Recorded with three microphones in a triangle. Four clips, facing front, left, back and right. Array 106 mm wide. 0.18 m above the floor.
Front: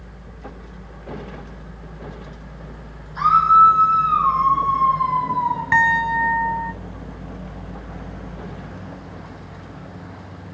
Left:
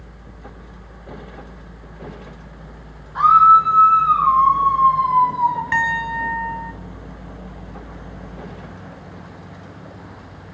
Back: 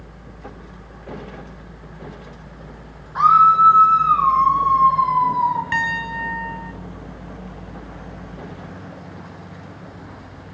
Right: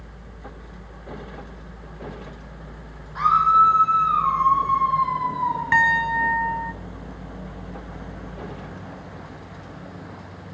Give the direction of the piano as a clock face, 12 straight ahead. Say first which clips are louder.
Right 1 dB, front 6 dB; 1 o'clock.